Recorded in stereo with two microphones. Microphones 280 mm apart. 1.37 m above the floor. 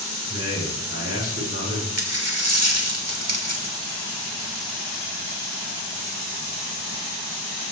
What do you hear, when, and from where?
0.3 s a man speaking: 55° right (ahead or behind), 4 m
2.0 s a dropped coin: 60° right (ahead or behind), 1.5 m